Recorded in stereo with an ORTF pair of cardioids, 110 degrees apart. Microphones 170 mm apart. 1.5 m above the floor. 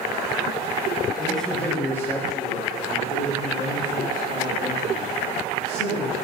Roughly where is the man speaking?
Ahead.